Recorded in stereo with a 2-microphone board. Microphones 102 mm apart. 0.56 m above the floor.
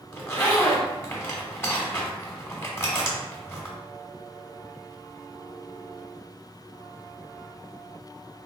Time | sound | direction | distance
0.1 | a zipper | 25° left (ahead or behind) | 0.8 m